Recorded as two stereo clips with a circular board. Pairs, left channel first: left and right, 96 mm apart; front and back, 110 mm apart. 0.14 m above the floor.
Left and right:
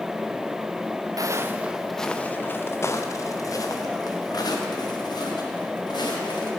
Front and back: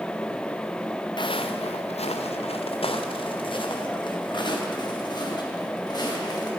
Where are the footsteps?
40° right, 0.7 m; by 6.5 s 50° left, 3.5 m.